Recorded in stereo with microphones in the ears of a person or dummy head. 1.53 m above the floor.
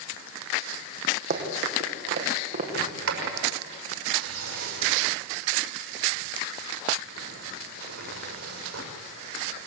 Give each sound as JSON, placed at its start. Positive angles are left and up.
{"t": 1.3, "sound": "running footsteps", "side_deg": -45, "distance_m": 4.0}
{"t": 2.7, "sound": "a sliding door", "side_deg": -85, "distance_m": 6.0}